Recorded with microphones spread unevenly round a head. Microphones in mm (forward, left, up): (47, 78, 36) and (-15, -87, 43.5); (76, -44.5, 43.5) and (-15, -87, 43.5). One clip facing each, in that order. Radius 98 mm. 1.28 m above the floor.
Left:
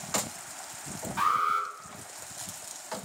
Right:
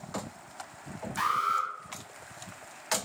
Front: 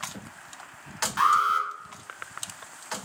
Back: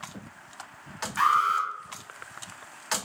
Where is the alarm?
40° right, 0.9 m.